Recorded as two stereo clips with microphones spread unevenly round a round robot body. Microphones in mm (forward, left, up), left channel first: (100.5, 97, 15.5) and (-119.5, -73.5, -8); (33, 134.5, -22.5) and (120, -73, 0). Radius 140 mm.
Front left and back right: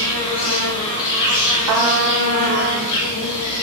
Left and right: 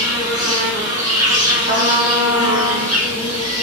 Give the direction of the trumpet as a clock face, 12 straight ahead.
4 o'clock.